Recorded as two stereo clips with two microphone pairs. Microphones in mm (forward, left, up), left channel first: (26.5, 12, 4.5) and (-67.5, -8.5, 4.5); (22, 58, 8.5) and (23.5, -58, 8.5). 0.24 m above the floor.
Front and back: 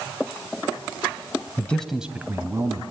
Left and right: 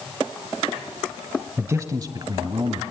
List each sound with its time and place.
1.6 s a man speaking: 45° right, 1.1 m; by 2.8 s 130° right, 1.6 m